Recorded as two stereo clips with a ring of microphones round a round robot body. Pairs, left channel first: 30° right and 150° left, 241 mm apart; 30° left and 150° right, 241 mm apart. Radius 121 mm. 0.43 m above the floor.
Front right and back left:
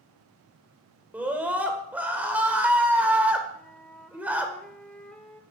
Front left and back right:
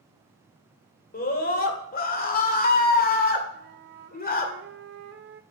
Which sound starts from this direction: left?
A scream, at 1.1 s.